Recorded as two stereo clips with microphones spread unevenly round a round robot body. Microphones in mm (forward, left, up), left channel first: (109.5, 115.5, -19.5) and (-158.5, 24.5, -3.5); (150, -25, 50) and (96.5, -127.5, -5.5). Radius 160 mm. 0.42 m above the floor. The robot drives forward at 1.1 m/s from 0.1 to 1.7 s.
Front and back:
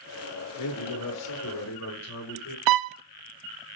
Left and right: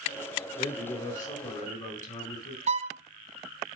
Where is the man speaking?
40° left, 7 m; by 2.6 s 45° left, 6 m.